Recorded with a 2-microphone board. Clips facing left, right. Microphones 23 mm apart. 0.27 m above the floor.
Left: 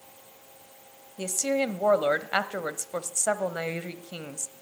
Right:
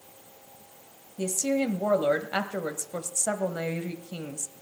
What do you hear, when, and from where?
1.2 s a woman speaking: 30° left (ahead or behind), 1.0 m